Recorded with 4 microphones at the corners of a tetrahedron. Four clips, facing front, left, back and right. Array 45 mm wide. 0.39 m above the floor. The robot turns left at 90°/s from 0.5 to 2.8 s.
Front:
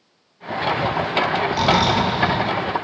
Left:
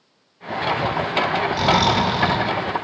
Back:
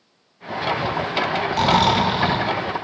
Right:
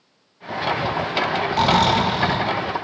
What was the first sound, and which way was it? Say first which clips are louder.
Snoring: right 2 dB, back 2 dB; 125° right.